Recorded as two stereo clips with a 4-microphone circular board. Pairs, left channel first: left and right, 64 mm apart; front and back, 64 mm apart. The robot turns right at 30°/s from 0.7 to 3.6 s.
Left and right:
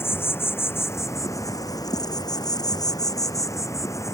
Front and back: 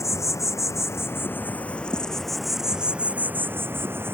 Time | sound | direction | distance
0.0 | an insect | 40° left | ?